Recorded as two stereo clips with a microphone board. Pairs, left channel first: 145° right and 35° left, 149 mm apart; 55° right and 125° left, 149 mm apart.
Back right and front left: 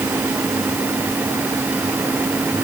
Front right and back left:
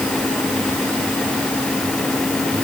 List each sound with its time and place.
Only background noise.